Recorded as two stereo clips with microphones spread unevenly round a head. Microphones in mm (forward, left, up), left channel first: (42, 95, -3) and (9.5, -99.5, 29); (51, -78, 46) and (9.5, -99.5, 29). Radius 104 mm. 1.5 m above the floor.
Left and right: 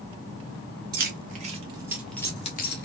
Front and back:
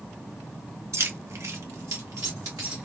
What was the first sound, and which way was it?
Keys jangling, 140° right.